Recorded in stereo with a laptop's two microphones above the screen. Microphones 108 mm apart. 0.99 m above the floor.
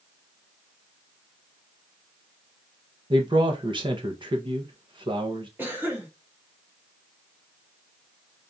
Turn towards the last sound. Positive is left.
turn(degrees=-15)  # may be behind; listen again after turning